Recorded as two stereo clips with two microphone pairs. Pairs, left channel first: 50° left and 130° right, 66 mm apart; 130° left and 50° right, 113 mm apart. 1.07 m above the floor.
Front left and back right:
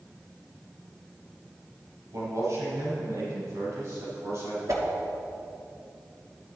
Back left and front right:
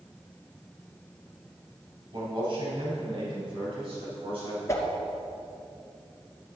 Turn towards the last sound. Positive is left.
turn(degrees=-165)